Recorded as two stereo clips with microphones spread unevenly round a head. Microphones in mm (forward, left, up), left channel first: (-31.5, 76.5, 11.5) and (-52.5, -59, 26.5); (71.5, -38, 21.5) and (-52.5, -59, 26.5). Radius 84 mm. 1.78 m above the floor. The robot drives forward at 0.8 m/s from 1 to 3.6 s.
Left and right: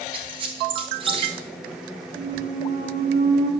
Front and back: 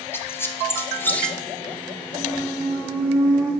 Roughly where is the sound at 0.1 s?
Ahead right.